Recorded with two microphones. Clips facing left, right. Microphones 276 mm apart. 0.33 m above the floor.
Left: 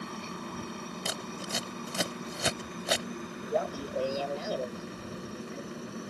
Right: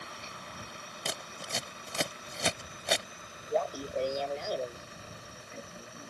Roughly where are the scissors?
Centre.